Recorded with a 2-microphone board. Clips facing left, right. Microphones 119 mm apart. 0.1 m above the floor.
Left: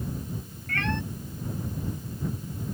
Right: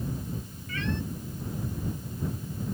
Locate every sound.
0.7 s a cat meowing: 65° left (ahead or behind)